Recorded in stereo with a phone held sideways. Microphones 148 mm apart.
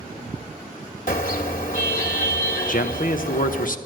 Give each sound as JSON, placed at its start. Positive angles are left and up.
{"t": 1.1, "sound": "a car horn", "side_deg": 70, "distance_m": 2.0}
{"t": 2.7, "sound": "a man speaking", "side_deg": 65, "distance_m": 1.1}